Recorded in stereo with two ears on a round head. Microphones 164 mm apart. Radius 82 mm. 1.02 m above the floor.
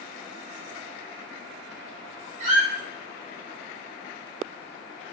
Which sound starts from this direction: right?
A squeak, at 2.4 s.